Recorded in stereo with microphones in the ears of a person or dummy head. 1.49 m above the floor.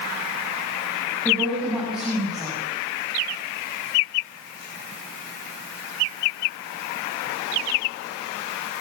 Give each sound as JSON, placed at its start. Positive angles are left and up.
{"t": 1.2, "sound": "a woman speaking", "side_deg": 0, "distance_m": 9.5}